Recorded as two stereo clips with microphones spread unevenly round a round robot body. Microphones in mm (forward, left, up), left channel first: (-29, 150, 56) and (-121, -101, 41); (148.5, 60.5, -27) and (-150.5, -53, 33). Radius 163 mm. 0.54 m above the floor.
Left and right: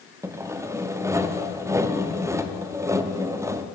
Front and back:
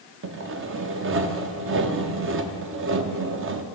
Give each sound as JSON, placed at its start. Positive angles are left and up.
{"t": 0.2, "sound": "sawing", "azimuth_deg": -170, "distance_m": 0.8}